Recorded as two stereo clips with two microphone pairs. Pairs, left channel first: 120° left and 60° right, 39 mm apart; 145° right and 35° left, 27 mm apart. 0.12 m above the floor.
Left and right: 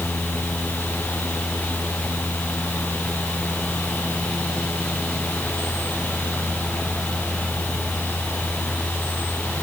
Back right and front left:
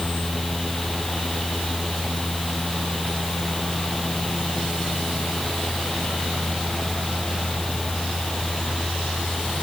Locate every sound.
Only background noise.